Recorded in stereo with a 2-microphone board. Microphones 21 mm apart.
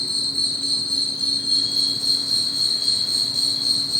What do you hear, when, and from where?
0.0 s an insect: 45° left (ahead or behind), 2.5 m